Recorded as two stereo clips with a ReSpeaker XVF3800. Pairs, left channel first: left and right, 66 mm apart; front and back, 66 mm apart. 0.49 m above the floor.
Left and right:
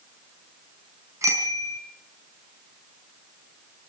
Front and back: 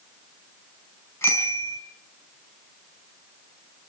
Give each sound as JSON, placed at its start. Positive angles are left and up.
{"t": 1.2, "sound": "a bicycle bell", "azimuth_deg": -45, "distance_m": 4.0}